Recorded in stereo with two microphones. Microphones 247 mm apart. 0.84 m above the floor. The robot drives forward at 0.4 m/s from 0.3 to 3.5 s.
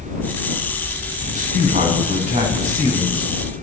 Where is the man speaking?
30° right (ahead or behind), 7 m; by 3.3 s 25° right (ahead or behind), 8 m.